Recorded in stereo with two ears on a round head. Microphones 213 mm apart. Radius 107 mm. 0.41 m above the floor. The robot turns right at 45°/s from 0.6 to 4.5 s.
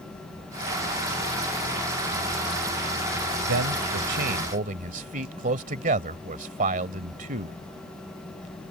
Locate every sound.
3.5 s a man speaking: 85° right; by 7.6 s 40° right